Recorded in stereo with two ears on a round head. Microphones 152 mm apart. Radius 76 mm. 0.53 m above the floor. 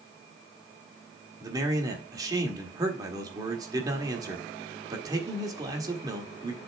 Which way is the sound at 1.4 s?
20° right (ahead or behind).